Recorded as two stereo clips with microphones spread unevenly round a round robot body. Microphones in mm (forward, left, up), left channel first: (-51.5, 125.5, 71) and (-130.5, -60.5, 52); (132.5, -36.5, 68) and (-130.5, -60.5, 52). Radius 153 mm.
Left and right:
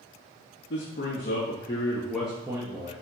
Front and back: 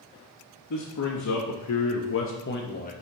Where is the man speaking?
25° left, 1.5 m; by 2.9 s 55° right, 1.3 m.